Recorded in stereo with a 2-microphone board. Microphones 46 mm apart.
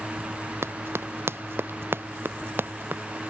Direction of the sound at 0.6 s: 65° right (ahead or behind).